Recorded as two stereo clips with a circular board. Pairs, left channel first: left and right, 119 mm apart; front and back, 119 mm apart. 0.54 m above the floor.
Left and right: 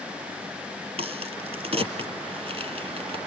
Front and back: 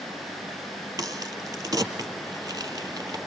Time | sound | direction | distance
1.0 | a crack | 120° right | 1.8 m